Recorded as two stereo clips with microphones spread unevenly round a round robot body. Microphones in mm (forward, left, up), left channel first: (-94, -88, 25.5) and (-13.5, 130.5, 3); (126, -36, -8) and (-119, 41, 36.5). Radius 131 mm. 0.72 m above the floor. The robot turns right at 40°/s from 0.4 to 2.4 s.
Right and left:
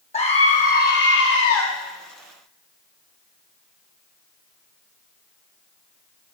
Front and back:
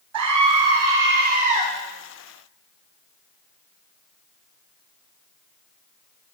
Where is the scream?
175° right, 1.3 m; by 1.6 s 125° right, 1.3 m.